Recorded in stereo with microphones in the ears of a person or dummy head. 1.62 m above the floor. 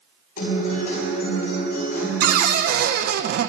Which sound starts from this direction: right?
A cupboard door, at 2.2 s.